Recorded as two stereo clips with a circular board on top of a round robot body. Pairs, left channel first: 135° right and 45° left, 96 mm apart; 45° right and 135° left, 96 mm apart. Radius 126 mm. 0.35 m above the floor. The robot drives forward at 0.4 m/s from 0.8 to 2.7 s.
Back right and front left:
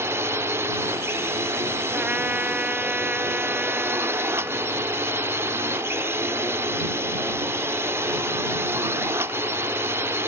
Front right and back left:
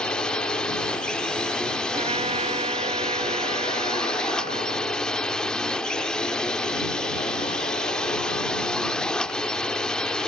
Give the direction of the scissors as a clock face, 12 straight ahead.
I don't hear scissors.